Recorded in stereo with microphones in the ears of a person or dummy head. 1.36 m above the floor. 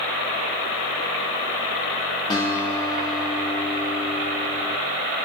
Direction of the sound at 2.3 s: 20° left (ahead or behind).